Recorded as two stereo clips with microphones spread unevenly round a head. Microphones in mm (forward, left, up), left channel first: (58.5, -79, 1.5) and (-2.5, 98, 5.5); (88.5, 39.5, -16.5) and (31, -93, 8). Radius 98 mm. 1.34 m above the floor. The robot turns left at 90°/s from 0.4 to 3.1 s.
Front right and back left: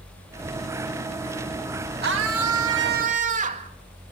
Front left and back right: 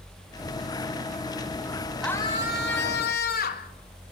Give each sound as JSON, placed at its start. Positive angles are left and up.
{"t": 2.0, "sound": "a scream", "azimuth_deg": 155, "distance_m": 2.5}